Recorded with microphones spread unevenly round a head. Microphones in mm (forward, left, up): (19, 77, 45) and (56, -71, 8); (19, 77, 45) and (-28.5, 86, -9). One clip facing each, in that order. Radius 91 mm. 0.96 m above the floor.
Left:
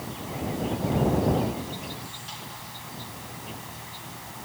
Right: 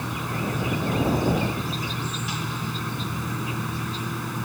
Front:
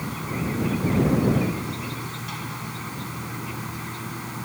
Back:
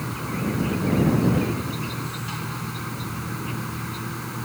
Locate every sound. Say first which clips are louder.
0.0 s an insect: right 4 dB, back 1 dB; 105° right